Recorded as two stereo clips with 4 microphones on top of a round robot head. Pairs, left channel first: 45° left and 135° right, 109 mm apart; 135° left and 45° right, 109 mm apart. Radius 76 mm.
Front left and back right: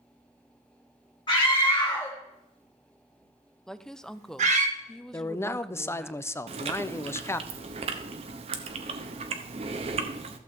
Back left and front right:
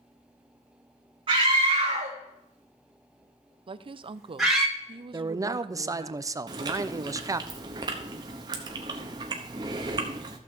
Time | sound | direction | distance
1.3 | a scream | 5° right | 1.8 m
3.7 | a woman speaking | 40° right | 0.6 m
5.1 | a man speaking | 10° right | 0.6 m
6.5 | chewing | 100° right | 0.8 m